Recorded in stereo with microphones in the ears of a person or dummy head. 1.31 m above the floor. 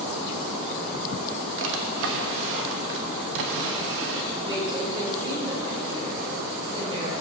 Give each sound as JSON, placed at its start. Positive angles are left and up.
{"t": 1.6, "sound": "a drawer", "side_deg": -70, "distance_m": 1.0}
{"t": 4.3, "sound": "a woman speaking", "side_deg": -25, "distance_m": 3.5}